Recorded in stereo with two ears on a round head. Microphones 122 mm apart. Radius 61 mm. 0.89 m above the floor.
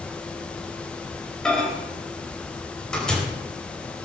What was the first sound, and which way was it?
A microwave, 5° left (ahead or behind).